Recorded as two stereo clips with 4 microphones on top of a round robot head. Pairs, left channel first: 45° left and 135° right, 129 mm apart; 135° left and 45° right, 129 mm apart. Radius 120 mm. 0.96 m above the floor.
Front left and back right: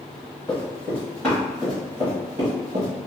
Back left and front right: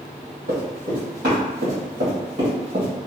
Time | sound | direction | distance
0.5 | running footsteps | 20° right | 1.7 m